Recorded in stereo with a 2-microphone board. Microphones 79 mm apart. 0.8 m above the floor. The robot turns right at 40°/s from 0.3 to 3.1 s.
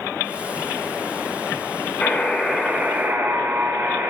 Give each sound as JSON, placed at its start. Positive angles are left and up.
{"t": 2.0, "sound": "a buzzer", "azimuth_deg": 160, "distance_m": 1.5}